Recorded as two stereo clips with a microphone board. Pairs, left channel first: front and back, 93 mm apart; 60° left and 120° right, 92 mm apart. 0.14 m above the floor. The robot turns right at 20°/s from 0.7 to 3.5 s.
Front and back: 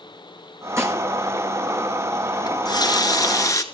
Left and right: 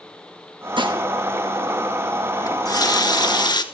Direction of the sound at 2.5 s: 20° left.